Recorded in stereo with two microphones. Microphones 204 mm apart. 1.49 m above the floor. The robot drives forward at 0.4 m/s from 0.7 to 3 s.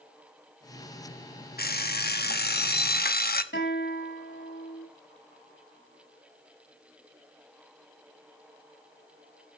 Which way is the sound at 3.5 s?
60° left (ahead or behind).